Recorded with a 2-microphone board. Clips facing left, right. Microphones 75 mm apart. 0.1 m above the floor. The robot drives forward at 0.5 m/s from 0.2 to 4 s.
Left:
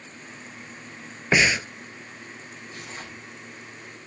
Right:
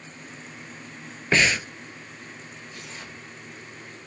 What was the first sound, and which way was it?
Breathing, 15° left (ahead or behind).